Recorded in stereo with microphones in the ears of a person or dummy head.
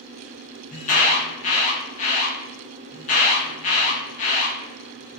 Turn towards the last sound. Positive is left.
turn(degrees=35)  # may be behind; listen again after turning